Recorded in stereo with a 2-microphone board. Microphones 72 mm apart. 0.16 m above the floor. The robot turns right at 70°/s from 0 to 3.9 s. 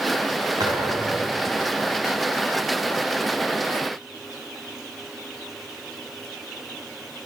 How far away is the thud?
About 7.5 m.